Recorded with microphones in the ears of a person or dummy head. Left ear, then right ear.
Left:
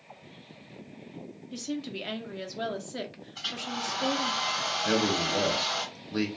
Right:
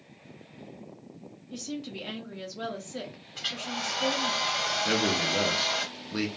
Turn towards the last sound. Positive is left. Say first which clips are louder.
# left 1 dB
turn(degrees=0)  # may be behind; listen again after turning